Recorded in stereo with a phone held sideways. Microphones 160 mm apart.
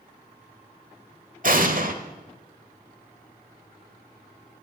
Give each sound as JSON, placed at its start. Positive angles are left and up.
{"t": 1.4, "sound": "an explosion", "side_deg": -60, "distance_m": 1.3}